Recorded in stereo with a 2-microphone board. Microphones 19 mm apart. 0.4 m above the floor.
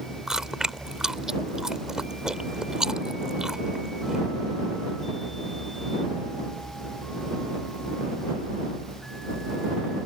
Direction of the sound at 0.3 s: 35° right (ahead or behind).